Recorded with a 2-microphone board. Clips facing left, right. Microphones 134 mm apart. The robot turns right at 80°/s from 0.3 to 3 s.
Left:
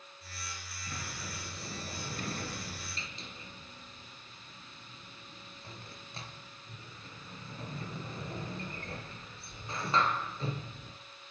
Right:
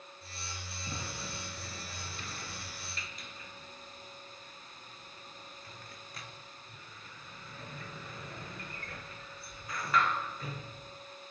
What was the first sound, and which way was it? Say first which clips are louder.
A sliding door: right 1 dB; 20° right (ahead or behind).